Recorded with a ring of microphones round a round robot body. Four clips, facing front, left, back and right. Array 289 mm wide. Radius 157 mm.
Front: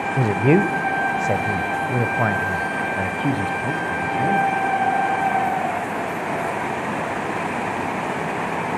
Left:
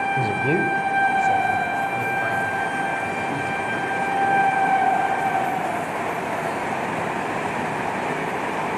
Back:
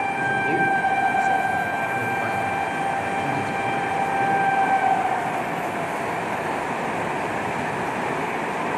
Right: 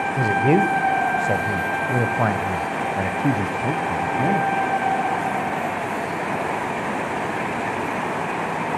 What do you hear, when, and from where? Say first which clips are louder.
0.2 s a man speaking: right 8 dB, front 8 dB; 10° right, 1.4 m; by 4.5 s 65° right, 3 m